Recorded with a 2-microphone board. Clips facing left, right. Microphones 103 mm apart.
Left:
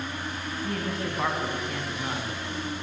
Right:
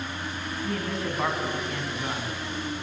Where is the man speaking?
Centre (ahead or behind), 1.6 m.